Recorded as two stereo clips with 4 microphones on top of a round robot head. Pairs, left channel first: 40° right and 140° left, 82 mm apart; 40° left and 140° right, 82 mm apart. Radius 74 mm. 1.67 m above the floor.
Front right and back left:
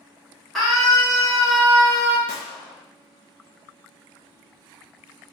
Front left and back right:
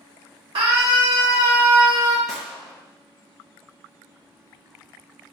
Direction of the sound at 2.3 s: 45° right.